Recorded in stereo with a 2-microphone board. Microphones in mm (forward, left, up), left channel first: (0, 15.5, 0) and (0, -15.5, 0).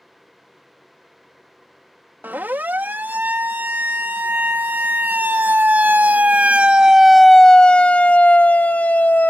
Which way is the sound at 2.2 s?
80° right.